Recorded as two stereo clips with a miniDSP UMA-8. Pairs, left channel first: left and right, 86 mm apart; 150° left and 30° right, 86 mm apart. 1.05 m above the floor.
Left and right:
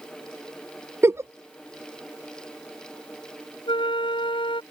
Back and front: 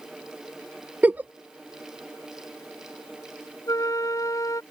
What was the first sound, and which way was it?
A giggle, 75° right.